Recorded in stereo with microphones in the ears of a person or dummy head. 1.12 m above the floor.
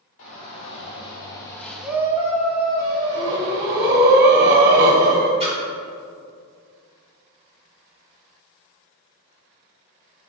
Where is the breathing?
50° right (ahead or behind), 1.9 m.